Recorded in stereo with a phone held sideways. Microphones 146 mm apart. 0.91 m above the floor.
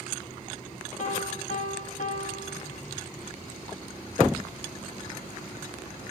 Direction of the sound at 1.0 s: 60° left (ahead or behind).